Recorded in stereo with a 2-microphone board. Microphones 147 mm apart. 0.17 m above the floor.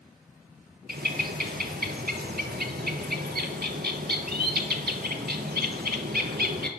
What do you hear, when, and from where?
0.9 s a bird: 80° right, 0.6 m